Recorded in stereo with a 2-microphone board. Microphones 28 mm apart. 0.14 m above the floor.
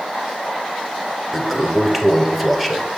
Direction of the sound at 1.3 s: 10° right (ahead or behind).